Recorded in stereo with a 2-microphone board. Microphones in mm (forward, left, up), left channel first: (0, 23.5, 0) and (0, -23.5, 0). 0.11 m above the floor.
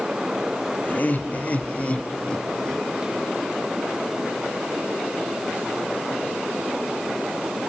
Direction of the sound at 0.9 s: 40° left (ahead or behind).